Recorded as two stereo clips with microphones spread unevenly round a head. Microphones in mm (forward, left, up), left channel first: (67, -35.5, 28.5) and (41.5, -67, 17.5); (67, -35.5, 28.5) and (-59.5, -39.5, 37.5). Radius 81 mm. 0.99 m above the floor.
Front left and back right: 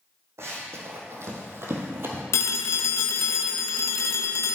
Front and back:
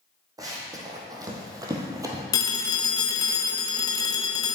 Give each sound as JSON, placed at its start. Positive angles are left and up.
{"t": 0.4, "sound": "running footsteps", "azimuth_deg": -120, "distance_m": 2.5}
{"t": 2.3, "sound": "a phone ringing", "azimuth_deg": 65, "distance_m": 0.5}